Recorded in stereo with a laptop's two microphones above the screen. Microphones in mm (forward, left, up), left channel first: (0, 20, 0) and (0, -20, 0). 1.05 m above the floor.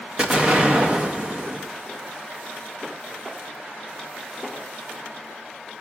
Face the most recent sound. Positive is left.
turn(degrees=-35)  # may be behind; listen again after turning